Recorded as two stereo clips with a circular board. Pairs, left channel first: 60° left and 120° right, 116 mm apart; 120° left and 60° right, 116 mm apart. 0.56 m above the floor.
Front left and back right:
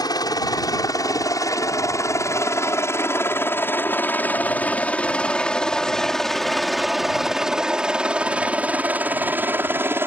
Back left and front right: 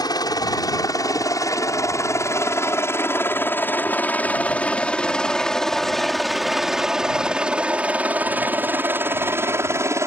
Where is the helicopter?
90° left; by 10.1 s 80° right.